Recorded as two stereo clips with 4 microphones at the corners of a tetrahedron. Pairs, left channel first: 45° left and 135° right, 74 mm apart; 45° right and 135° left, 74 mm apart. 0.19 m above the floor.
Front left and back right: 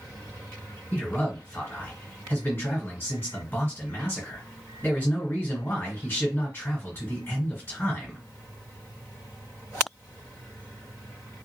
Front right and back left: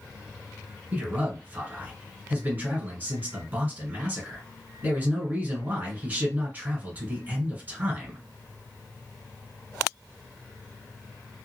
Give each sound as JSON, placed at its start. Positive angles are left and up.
{"t": 0.9, "sound": "a man speaking", "azimuth_deg": 85, "distance_m": 1.8}